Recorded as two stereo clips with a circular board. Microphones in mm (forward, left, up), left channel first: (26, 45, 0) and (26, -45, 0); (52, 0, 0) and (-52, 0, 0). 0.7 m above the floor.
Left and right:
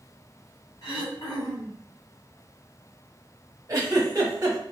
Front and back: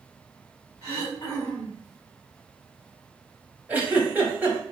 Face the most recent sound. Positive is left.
turn(degrees=-110)